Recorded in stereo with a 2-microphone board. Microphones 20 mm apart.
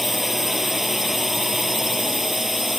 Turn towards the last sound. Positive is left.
turn(degrees=-15)  # may be behind; listen again after turning